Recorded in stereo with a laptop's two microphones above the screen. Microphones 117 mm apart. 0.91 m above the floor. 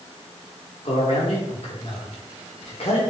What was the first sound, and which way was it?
A man speaking, 65° left (ahead or behind).